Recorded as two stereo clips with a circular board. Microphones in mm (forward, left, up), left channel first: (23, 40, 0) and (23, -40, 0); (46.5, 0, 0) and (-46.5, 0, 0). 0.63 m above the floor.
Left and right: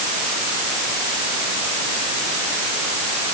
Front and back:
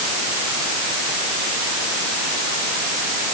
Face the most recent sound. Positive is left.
No sound to turn to.